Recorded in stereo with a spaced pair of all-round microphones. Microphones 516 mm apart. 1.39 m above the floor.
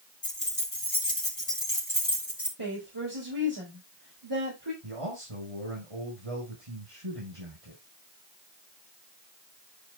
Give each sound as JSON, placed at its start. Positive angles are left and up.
{"t": 0.2, "sound": "keys jangling", "side_deg": 75, "distance_m": 1.9}
{"t": 2.6, "sound": "a woman speaking", "side_deg": -50, "distance_m": 4.5}
{"t": 4.8, "sound": "a man speaking", "side_deg": -80, "distance_m": 7.0}